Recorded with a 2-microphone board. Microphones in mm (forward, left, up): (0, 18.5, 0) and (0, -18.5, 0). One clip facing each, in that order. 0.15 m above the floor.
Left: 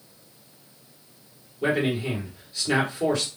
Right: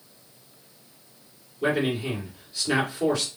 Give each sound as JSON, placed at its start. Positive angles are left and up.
{"t": 1.6, "sound": "a man speaking", "side_deg": -5, "distance_m": 2.0}